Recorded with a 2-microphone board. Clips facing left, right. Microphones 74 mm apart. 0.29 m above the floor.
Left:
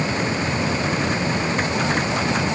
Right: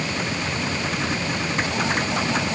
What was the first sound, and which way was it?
Only background noise.